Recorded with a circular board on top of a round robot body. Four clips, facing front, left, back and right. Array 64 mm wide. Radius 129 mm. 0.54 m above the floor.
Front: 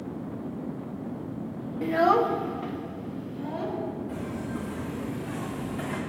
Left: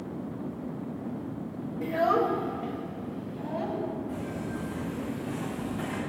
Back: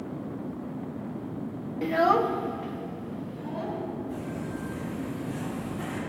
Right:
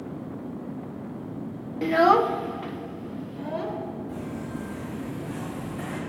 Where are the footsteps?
20° right, 5 m; by 6.0 s 35° right, 4 m.